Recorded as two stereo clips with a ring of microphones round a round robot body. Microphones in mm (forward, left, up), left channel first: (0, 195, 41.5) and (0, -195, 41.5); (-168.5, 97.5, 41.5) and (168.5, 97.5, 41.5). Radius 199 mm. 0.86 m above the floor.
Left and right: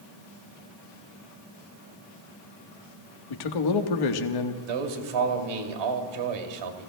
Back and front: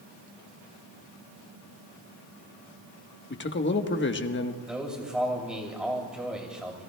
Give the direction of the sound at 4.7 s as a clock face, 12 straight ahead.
3 o'clock.